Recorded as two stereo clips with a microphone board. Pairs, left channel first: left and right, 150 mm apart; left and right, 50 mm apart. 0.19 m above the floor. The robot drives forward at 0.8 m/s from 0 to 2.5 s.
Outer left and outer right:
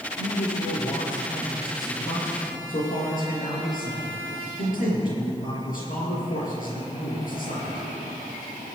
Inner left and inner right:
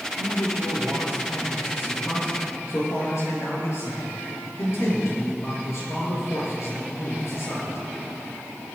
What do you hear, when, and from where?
0.2 s a man speaking: 65° left (ahead or behind), 4.5 m